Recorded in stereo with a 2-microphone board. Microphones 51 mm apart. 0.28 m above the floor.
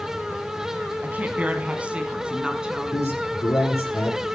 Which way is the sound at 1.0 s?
35° right (ahead or behind).